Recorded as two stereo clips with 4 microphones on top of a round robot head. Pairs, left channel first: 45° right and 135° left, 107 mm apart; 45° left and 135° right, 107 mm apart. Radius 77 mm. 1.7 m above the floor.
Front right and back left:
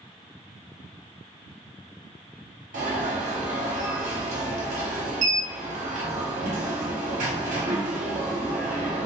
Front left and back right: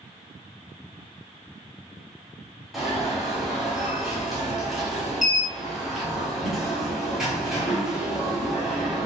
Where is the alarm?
135° left, 1.2 m.